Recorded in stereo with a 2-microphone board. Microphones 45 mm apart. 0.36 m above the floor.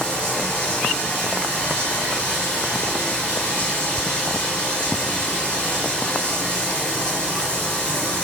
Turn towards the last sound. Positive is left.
turn(degrees=25)  # may be behind; listen again after turning